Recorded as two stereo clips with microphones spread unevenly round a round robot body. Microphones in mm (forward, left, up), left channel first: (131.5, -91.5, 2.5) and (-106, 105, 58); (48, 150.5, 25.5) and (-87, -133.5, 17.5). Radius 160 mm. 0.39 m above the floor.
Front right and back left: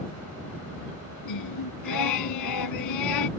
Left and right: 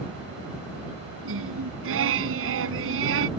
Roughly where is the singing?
Ahead right.